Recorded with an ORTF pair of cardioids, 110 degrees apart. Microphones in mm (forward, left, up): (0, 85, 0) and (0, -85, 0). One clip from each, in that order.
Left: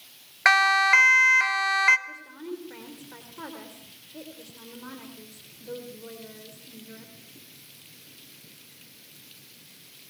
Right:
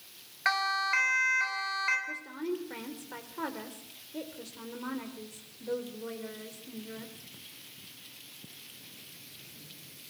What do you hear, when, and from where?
0.5 s a siren: 55° left, 2 m
2.1 s a woman speaking: 25° right, 3.5 m